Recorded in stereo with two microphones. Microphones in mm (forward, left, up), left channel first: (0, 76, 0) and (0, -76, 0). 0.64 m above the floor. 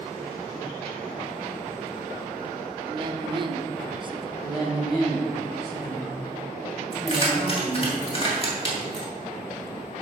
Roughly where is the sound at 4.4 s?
Left.